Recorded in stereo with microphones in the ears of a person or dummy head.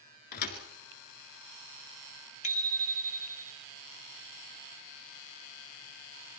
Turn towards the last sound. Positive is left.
turn(degrees=35)  # may be behind; listen again after turning